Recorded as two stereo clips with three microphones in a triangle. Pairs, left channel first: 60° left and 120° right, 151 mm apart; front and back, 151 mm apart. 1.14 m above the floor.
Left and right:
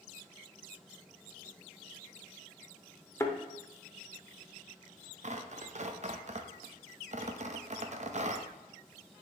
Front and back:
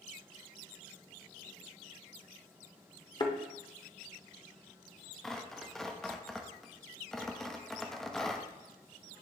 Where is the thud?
10° left, 0.8 m.